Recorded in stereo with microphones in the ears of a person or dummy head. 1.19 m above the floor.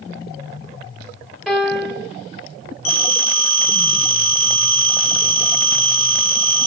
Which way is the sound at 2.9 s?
35° left (ahead or behind).